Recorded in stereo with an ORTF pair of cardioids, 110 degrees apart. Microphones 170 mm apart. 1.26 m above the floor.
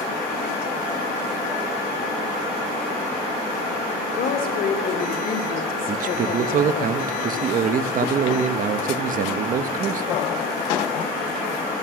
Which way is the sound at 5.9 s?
55° right.